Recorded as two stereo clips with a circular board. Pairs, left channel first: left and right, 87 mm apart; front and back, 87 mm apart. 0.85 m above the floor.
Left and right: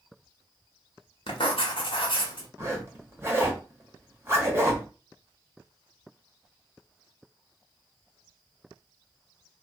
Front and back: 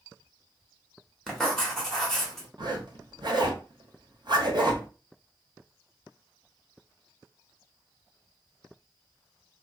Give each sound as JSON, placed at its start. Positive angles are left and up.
{"t": 1.3, "sound": "writing", "azimuth_deg": 85, "distance_m": 0.8}
{"t": 2.6, "sound": "a zipper", "azimuth_deg": -150, "distance_m": 0.8}